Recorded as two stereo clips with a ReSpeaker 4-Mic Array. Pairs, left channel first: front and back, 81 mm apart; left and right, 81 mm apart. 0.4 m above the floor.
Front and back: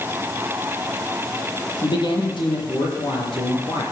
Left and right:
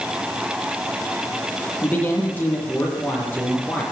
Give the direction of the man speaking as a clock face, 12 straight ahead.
11 o'clock.